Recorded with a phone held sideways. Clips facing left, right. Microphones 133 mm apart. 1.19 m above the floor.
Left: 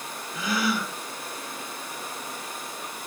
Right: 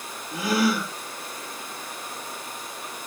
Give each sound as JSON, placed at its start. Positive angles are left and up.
{"t": 0.3, "sound": "a gasp", "side_deg": -65, "distance_m": 9.5}